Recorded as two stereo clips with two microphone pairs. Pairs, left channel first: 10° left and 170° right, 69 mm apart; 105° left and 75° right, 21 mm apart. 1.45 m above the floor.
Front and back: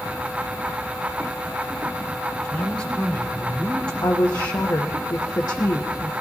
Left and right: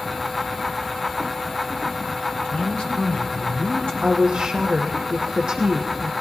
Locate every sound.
2.3 s a man speaking: 85° left, 4.5 m
4.0 s a woman speaking: 25° right, 0.9 m